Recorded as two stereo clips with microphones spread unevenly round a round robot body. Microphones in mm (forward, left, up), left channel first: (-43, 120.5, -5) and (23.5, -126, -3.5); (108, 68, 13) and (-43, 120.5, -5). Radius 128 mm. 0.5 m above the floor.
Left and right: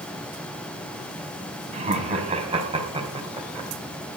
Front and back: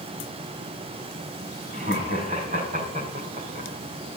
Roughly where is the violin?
I don't hear a violin.